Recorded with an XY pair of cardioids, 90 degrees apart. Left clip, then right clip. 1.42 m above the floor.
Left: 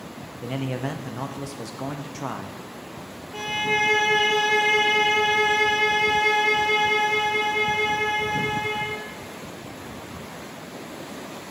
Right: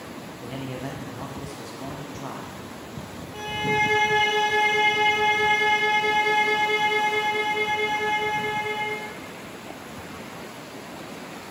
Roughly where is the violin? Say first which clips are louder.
Left 1 dB; ahead left.